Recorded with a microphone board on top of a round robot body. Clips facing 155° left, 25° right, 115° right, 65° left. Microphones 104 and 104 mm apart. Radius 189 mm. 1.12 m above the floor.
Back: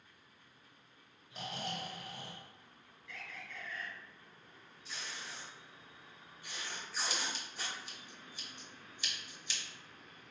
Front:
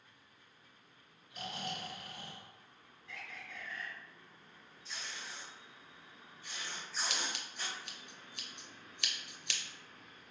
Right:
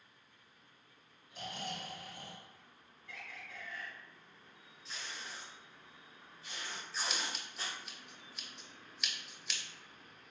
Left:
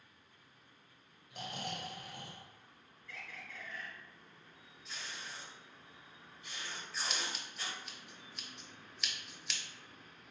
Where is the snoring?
95° left, 0.9 m.